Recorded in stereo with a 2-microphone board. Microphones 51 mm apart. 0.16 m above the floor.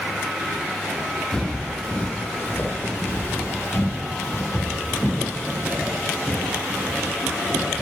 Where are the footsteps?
15° left (ahead or behind), 3 m; by 7.8 s 80° left, 6 m.